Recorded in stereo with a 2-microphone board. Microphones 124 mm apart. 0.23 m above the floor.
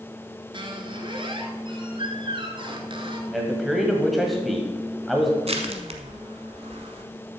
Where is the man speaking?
Centre (ahead or behind), 1.2 m.